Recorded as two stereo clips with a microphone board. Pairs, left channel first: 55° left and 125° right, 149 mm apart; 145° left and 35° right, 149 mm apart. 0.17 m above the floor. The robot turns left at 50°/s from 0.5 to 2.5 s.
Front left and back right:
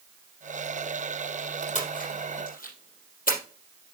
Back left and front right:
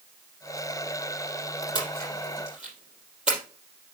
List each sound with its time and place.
1.8 s a splash: 85° left, 4 m; by 3.4 s 50° left, 4 m